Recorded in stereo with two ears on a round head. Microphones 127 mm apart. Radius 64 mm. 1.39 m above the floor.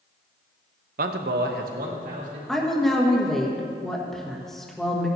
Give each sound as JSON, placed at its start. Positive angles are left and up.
{"t": 1.0, "sound": "a man speaking", "side_deg": -65, "distance_m": 0.8}
{"t": 2.5, "sound": "a woman speaking", "side_deg": 5, "distance_m": 1.8}